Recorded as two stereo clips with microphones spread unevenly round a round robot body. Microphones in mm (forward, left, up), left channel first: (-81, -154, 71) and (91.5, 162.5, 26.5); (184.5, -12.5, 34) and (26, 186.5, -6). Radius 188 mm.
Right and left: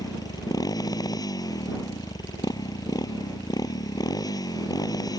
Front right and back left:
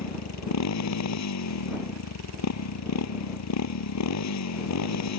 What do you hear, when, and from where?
0.0 s a motorcycle: 40° right